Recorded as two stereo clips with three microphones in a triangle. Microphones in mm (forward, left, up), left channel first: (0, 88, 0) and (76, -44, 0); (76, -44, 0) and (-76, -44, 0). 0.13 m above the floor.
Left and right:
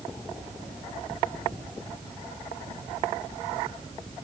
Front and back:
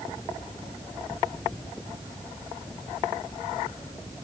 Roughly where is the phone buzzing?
No phone buzzing in this recording.